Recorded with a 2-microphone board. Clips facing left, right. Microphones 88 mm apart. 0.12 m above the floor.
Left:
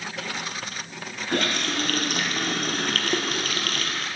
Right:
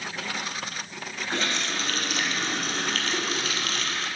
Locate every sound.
1.3 s a running tap: 60° left (ahead or behind), 2 m